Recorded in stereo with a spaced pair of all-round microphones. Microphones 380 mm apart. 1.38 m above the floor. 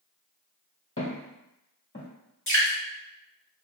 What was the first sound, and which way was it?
Footsteps, 35° left (ahead or behind).